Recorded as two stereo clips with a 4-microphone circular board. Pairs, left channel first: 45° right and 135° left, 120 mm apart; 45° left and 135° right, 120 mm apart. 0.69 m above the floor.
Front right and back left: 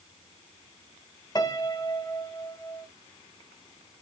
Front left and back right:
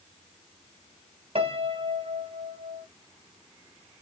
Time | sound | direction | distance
1.4 | a piano | 100° right | 0.7 m